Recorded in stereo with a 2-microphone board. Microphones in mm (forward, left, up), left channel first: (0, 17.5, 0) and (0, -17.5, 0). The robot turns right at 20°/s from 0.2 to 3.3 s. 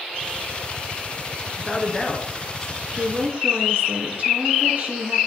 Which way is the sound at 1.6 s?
Centre (ahead or behind).